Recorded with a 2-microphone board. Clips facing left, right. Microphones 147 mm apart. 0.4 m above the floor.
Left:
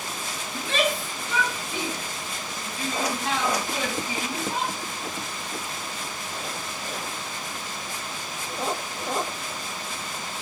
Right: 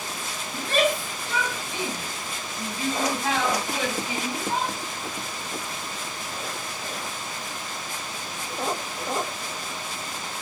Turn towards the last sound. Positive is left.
turn(degrees=-80)